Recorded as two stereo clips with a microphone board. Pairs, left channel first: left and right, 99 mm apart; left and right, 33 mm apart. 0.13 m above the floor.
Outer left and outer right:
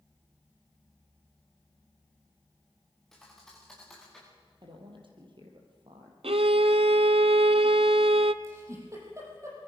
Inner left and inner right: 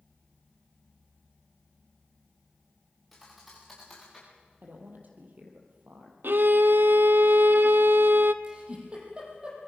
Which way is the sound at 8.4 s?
30° right (ahead or behind).